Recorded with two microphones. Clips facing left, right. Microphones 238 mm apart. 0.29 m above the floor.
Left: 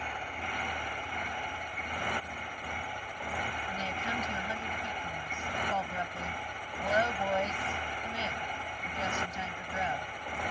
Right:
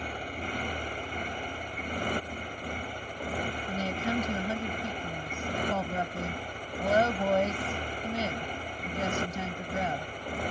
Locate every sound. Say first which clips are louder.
0.0 s a motorcycle: right 5 dB; 40° right (ahead or behind)
3.7 s a woman speaking: right 9 dB; 50° right (ahead or behind)